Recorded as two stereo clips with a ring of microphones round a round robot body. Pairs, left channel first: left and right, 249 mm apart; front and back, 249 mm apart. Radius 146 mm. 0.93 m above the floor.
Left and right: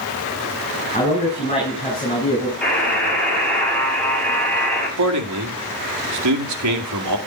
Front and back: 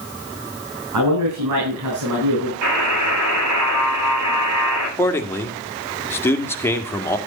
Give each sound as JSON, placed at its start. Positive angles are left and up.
{"t": 0.9, "sound": "a man speaking", "azimuth_deg": 155, "distance_m": 6.0}
{"t": 2.6, "sound": "a buzzer", "azimuth_deg": 175, "distance_m": 8.5}
{"t": 5.0, "sound": "a man speaking", "azimuth_deg": -80, "distance_m": 1.9}